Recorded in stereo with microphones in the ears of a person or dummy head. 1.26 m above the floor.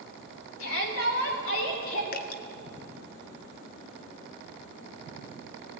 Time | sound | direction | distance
0.6 | a shout | 90° left | 4 m
2.1 | dripping | 55° left (ahead or behind) | 1.0 m